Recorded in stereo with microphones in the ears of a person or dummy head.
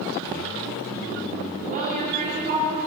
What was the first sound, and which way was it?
A woman speaking, 45° right (ahead or behind).